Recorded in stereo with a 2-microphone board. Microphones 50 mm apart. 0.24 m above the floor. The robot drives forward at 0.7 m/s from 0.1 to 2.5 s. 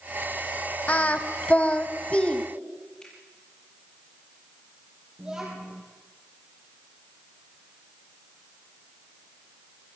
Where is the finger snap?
15° left (ahead or behind), 7.5 m.